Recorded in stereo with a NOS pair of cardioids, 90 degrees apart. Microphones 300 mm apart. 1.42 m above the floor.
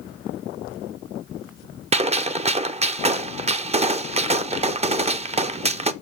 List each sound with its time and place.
1.9 s a gunshot: 20° right, 0.5 m